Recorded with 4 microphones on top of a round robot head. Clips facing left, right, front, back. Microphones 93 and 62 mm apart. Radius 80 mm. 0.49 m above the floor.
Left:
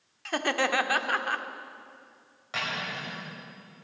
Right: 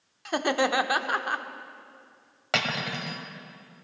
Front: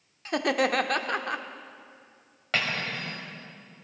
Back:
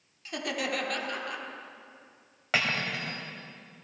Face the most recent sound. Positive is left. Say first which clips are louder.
# right 4 dB, even
turn(degrees=-100)